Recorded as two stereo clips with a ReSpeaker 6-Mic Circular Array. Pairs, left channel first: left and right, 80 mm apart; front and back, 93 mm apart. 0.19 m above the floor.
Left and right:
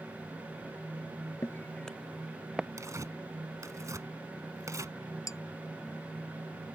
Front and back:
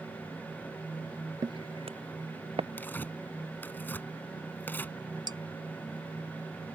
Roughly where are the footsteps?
Behind left.